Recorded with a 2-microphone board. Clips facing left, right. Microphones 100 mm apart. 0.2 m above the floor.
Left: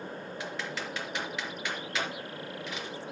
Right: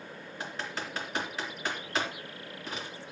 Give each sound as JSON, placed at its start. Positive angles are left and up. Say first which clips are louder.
{"t": 0.4, "sound": "typing on a keyboard", "louder": "right 1 dB", "side_deg": -35, "distance_m": 3.5}